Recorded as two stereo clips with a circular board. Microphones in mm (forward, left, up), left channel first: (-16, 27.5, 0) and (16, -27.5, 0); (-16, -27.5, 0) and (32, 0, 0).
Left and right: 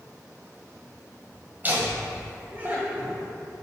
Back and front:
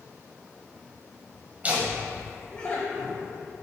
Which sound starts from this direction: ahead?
Laughter, at 1.6 s.